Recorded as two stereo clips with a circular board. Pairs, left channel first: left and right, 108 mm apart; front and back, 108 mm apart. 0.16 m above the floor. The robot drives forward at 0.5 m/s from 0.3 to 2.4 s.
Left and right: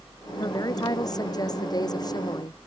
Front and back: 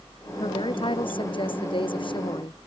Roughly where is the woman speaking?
Ahead left.